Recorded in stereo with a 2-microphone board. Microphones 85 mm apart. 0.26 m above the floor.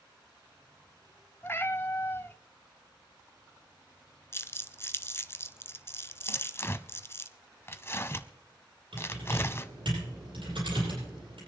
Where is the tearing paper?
30° left (ahead or behind), 0.6 m.